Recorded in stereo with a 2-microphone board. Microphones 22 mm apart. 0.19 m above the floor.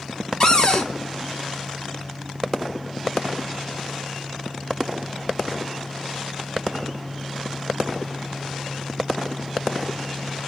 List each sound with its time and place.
0.4 s a cupboard door: 45° left (ahead or behind), 0.6 m